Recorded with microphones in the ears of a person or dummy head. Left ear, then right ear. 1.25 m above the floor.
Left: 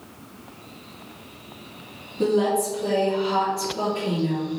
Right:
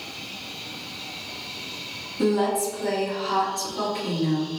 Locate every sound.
2.2 s a woman speaking: 55° right (ahead or behind), 2.0 m